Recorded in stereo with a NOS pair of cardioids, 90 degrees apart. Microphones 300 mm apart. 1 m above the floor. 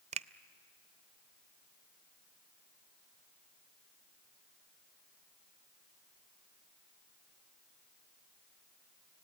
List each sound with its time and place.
0.1 s a finger snap: 20° right, 0.6 m